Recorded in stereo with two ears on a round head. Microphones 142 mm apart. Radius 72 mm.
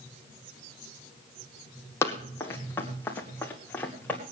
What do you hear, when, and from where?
2.0 s running footsteps: 15° left (ahead or behind), 2.5 m; by 4.2 s 10° left (ahead or behind), 4.5 m